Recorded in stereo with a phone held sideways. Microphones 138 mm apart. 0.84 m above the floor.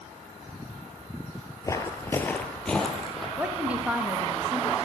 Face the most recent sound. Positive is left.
turn(degrees=-10)  # may be behind; listen again after turning